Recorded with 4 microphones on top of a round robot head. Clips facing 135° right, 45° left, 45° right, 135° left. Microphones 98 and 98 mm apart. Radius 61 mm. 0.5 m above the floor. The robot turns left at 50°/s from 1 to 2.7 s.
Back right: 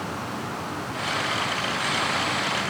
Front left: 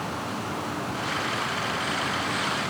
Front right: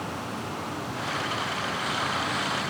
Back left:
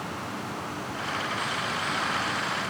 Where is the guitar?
No guitar in this recording.